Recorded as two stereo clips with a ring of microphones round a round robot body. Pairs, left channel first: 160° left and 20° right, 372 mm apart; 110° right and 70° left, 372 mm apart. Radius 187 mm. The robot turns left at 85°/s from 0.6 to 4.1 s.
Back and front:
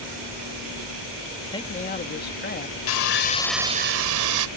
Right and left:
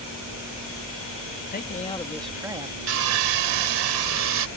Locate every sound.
1.5 s a man speaking: 135° right; by 2.8 s 115° left
2.9 s sawing: 125° left; by 4.5 s 20° left